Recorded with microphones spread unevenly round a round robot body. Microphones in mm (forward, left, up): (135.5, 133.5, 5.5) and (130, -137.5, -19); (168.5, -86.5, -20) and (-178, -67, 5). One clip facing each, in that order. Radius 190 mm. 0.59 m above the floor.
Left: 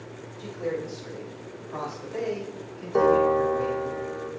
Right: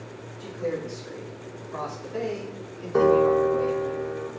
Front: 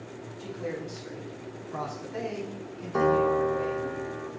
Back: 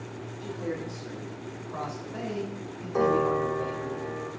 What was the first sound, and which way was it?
A man speaking, 60° left.